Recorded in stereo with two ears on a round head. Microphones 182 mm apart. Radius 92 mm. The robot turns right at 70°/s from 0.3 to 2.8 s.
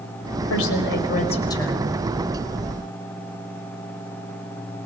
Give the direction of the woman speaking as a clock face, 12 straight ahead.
9 o'clock.